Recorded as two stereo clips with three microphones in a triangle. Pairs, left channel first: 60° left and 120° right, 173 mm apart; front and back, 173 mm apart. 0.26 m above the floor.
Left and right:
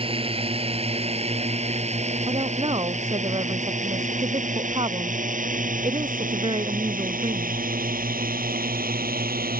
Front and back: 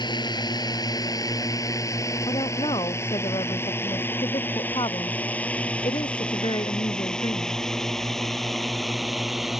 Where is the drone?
65° right; by 9.6 s 90° right.